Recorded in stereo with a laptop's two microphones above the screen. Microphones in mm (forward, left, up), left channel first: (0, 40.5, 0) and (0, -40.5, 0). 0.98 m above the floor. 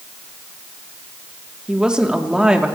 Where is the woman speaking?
10° right (ahead or behind), 2.5 m.